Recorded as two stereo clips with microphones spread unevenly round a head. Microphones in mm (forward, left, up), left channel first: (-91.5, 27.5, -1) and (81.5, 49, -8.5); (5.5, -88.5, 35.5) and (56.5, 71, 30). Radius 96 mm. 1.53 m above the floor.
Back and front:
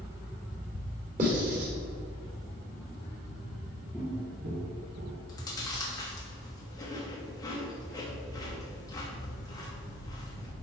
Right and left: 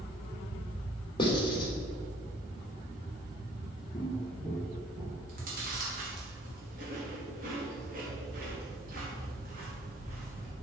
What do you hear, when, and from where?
1.2 s writing: 45° right, 3 m
3.9 s footsteps: 80° right, 1.6 m; by 5.2 s 10° right, 2.5 m
5.3 s chewing: 120° left, 2.5 m